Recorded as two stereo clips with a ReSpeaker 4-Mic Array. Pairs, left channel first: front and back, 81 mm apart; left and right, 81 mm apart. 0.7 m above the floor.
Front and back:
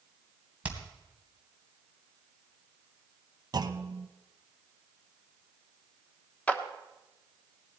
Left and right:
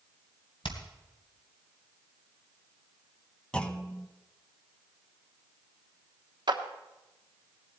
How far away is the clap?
About 1.1 m.